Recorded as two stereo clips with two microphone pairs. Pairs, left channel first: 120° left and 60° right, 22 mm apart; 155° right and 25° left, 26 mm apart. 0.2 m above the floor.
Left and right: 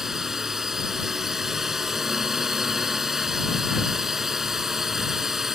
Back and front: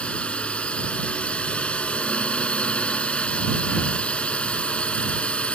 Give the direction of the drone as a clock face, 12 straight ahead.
4 o'clock.